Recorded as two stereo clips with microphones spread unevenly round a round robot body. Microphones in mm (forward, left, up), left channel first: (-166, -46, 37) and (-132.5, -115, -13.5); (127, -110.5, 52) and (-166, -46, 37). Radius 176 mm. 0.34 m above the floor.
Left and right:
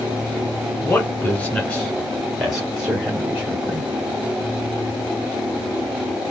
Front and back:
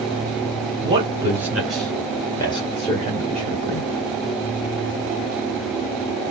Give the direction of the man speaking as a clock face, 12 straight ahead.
5 o'clock.